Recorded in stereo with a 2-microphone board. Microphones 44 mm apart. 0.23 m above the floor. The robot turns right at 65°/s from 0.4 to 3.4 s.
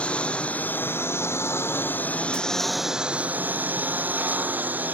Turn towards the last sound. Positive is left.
turn(degrees=-135)